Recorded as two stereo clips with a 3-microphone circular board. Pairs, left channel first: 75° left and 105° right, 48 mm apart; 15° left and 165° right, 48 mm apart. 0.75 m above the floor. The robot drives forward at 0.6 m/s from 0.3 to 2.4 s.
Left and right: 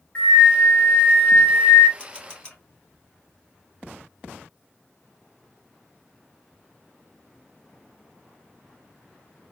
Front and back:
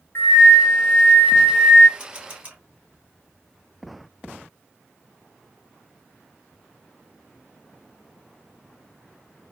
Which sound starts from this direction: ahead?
A flute, at 0.1 s.